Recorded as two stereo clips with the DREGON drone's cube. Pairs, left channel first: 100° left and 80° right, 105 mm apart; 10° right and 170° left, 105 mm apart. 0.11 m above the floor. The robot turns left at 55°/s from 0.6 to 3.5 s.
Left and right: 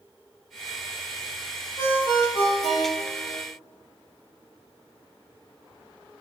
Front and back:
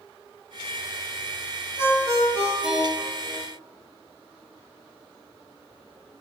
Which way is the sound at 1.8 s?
140° left.